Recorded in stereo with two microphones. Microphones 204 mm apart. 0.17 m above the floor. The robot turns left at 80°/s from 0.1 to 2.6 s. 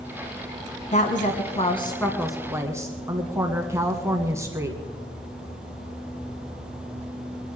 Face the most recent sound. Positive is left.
turn(degrees=-25)